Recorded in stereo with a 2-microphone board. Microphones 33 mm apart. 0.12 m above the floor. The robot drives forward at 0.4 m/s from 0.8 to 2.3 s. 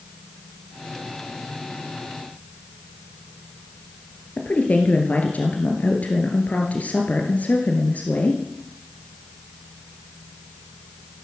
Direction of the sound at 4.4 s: 55° left (ahead or behind).